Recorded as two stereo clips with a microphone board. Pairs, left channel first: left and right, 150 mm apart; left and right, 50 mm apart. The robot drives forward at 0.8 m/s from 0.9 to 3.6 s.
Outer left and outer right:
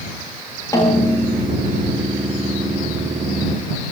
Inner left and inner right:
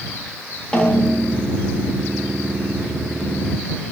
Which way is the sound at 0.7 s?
20° left (ahead or behind).